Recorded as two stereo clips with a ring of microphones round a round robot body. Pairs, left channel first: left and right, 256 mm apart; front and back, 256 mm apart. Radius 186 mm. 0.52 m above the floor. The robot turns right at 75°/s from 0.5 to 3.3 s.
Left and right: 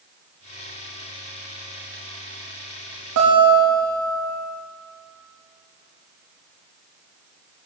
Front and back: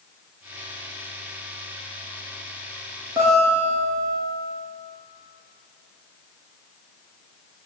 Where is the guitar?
100° right, 5 m; by 4.1 s 90° right, 5 m.